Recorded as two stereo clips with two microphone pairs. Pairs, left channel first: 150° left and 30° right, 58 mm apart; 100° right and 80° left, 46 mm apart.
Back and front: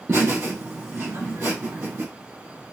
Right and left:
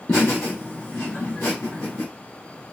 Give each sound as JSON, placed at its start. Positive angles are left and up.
{"t": 0.1, "sound": "laughter", "azimuth_deg": -75, "distance_m": 3.0}